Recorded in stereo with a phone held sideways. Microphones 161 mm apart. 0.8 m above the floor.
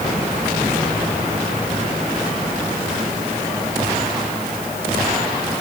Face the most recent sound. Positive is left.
No sound to turn to.